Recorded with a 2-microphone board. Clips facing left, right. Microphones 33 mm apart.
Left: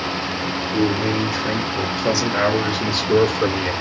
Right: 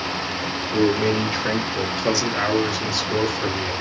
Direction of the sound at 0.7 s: 35° right (ahead or behind).